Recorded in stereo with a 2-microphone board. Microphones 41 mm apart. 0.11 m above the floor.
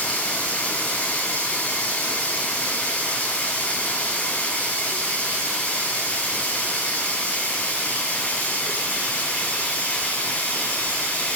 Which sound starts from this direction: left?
Running water, at 0.0 s.